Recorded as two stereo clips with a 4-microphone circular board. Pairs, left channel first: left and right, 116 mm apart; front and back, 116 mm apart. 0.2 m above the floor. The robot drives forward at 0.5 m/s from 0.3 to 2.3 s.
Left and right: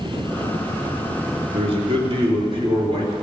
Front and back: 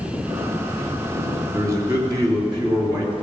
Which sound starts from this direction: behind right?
A man speaking, at 1.5 s.